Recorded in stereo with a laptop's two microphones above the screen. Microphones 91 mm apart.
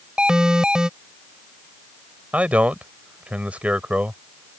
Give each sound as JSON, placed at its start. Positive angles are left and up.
{"t": 0.2, "sound": "an alarm", "side_deg": -10}
{"t": 2.3, "sound": "a man speaking", "side_deg": -15}